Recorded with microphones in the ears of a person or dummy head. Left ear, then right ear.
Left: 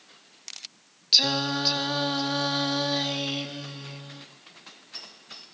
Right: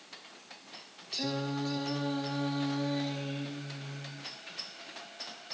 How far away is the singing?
About 1.2 m.